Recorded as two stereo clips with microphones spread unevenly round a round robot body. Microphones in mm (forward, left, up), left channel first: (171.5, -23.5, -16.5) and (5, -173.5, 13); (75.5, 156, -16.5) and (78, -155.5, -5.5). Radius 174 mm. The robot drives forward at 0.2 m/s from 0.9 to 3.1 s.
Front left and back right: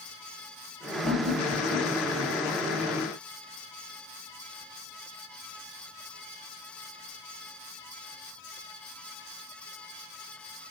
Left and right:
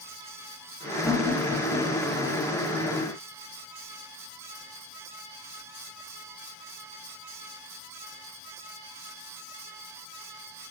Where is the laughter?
175° right, 0.8 m.